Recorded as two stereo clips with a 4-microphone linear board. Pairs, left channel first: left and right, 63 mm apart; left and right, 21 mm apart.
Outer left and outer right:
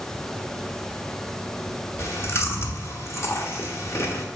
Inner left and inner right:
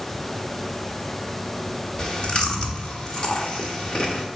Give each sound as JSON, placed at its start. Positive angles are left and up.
{"t": 2.0, "sound": "chewing", "side_deg": 45, "distance_m": 1.3}